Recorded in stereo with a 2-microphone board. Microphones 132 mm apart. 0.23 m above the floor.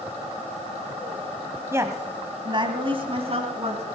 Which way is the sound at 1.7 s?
20° right (ahead or behind).